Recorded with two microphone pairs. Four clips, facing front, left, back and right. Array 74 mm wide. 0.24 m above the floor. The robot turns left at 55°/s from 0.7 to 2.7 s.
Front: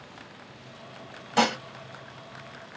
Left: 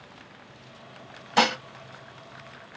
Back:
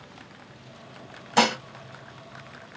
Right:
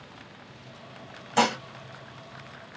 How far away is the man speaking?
No man speaking in this recording.